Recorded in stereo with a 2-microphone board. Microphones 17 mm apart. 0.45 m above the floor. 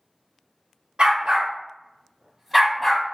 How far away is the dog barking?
About 1.1 m.